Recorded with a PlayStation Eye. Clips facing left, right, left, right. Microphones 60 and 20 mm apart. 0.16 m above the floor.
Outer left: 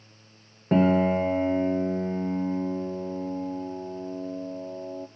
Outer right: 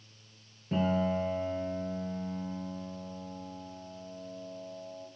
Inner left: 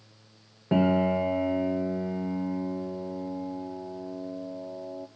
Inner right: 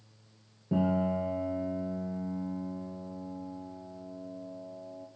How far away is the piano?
About 1.2 m.